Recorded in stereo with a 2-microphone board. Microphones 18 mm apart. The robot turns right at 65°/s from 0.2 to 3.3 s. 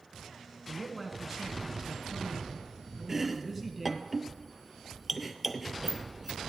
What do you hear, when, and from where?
0.7 s a man speaking: 170° left, 1.3 m; by 4.1 s 20° right, 1.3 m
3.1 s chopping: 20° right (ahead or behind), 0.5 m; by 6.4 s 5° right (ahead or behind), 0.5 m